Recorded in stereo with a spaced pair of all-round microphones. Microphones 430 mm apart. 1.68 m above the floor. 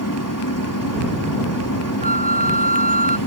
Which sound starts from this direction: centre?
A flute, at 2.0 s.